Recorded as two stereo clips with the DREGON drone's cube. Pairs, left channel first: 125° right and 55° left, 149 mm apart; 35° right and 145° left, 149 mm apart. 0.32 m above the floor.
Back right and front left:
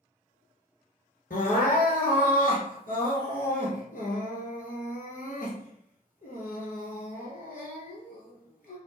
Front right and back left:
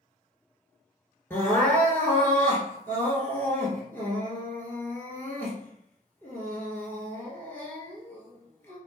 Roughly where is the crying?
Right.